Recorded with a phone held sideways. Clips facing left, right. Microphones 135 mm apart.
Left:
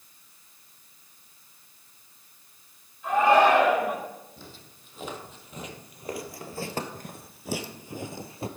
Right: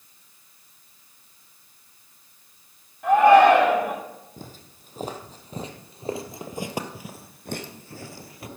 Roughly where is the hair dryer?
I don't hear a hair dryer.